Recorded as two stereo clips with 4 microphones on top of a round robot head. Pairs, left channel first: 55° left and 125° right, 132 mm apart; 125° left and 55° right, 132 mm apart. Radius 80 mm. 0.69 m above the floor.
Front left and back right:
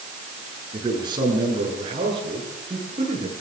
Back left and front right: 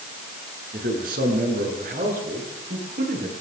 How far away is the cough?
I don't hear a cough.